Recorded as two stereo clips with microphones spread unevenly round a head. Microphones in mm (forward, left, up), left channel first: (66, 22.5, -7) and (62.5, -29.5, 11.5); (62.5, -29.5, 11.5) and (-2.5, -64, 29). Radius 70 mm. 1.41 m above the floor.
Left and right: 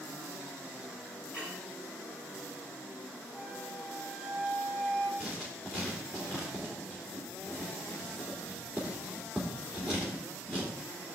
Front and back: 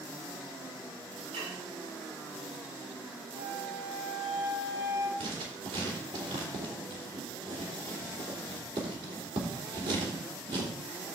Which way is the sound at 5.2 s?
175° left.